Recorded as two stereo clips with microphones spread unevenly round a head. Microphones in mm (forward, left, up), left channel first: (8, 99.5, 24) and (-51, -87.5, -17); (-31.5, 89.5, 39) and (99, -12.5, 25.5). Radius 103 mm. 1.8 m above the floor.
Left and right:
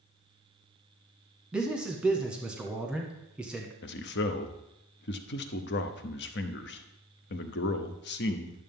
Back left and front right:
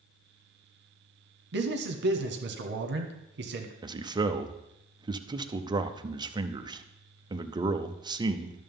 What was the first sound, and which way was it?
A man speaking, 20° right.